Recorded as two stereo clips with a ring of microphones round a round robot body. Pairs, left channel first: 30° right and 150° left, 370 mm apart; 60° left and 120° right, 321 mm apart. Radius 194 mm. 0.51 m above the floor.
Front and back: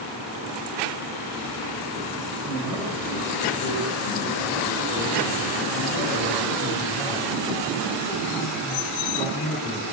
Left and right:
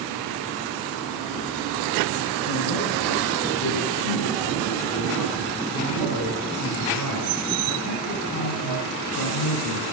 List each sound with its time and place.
2.4 s a man speaking: 70° left, 8 m; by 9.8 s 45° left, 6 m